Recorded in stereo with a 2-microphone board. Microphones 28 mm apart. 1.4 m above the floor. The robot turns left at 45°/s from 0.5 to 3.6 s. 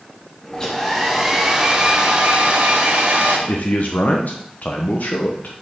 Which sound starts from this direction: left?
A man speaking, at 3.5 s.